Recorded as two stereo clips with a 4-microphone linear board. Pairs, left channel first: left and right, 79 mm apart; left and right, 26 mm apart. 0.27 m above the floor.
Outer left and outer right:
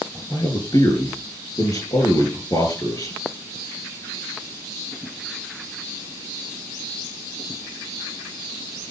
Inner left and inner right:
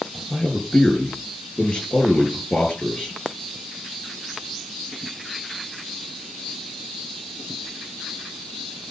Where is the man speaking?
55° left (ahead or behind), 5.5 m.